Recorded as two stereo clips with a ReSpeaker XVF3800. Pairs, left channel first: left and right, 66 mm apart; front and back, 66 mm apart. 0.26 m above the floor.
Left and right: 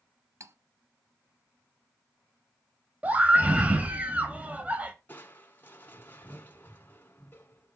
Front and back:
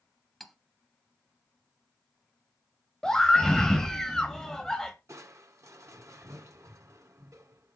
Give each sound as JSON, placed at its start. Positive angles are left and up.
{"t": 0.4, "sound": "cutlery clinking", "azimuth_deg": -90, "distance_m": 0.7}
{"t": 3.0, "sound": "a scream", "azimuth_deg": -70, "distance_m": 1.0}
{"t": 5.1, "sound": "crushing", "azimuth_deg": 145, "distance_m": 1.2}